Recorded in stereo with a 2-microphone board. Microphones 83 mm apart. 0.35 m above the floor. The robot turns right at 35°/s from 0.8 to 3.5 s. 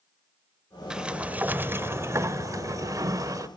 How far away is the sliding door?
About 0.6 m.